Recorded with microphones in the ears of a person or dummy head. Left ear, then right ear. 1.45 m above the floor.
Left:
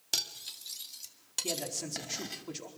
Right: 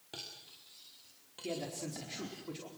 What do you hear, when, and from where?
0.1 s cutlery clinking: 80° left, 2.5 m
1.4 s a man speaking: 25° left (ahead or behind), 4.5 m